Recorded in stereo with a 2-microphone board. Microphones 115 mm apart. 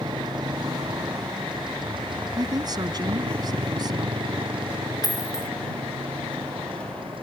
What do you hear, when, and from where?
0.0 s a motorcycle: 40° right (ahead or behind); by 7.2 s 50° right (ahead or behind)
2.4 s a woman speaking: 40° right (ahead or behind)
5.0 s a dropped coin: 30° left (ahead or behind)